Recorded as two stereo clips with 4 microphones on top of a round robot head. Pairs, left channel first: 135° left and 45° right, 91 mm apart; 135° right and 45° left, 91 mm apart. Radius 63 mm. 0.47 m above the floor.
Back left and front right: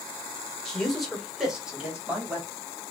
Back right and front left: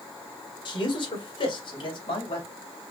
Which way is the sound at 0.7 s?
145° right.